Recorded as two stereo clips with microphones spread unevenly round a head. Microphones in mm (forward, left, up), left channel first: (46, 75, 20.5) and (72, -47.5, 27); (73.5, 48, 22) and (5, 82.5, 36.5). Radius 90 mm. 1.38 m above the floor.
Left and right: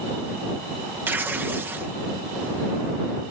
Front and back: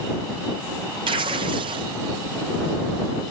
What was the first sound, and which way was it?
Tearing paper, 160° right.